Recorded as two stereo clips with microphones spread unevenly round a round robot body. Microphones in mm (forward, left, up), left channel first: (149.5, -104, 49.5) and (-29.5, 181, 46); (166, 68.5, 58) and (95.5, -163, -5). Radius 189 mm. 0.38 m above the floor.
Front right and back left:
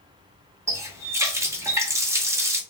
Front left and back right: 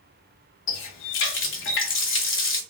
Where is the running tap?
45° left, 0.7 m.